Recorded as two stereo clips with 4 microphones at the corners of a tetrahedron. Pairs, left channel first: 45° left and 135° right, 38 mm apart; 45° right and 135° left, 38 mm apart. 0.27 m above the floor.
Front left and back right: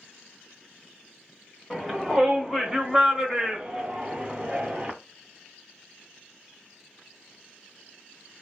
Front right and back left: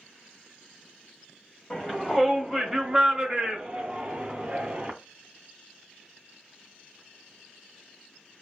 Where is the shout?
35° right, 1.5 m; by 4.9 s 170° left, 2 m.